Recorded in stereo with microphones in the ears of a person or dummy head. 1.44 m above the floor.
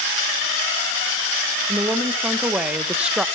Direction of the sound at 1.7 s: 10° right (ahead or behind).